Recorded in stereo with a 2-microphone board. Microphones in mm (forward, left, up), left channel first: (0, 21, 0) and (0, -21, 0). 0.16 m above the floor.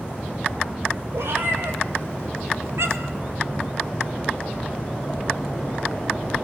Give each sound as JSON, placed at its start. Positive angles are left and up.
{"t": 1.1, "sound": "a cat meowing", "side_deg": -65, "distance_m": 3.0}